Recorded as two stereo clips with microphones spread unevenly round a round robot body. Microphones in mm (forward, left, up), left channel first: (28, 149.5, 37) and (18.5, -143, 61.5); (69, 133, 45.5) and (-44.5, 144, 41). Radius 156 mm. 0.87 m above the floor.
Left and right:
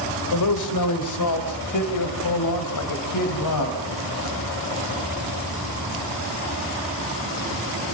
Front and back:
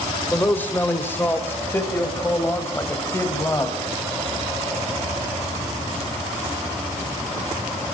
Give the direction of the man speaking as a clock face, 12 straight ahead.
10 o'clock.